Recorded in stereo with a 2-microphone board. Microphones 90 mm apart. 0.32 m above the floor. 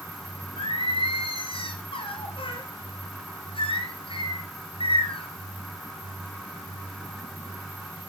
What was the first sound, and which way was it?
Singing, 75° left (ahead or behind).